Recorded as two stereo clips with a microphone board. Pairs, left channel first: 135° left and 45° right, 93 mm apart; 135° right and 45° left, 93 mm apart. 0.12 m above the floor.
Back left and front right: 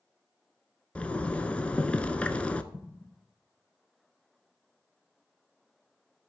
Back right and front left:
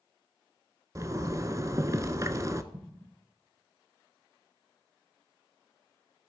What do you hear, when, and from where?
0.9 s a zipper: 65° left, 0.6 m
2.7 s an explosion: 60° left, 1.6 m